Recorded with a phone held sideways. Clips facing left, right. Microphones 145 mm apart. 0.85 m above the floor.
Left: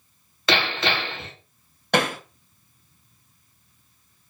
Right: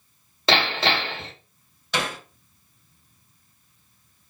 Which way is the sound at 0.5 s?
30° right (ahead or behind).